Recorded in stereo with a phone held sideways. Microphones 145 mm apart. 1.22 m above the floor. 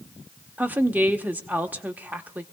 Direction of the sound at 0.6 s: 10° right (ahead or behind).